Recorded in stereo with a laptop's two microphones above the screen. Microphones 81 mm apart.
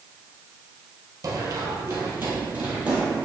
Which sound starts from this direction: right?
Running footsteps, at 1.2 s.